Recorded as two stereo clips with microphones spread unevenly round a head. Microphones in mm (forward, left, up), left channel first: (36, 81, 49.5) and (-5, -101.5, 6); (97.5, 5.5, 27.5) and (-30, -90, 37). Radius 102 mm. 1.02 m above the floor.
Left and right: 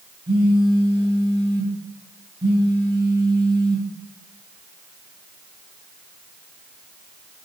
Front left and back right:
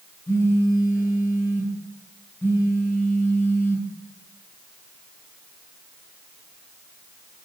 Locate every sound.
0.3 s a phone buzzing: 40° right, 5.5 m